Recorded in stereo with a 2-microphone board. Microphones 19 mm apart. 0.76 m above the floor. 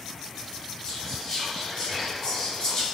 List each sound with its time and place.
0.8 s whispering: 30° left (ahead or behind), 1.8 m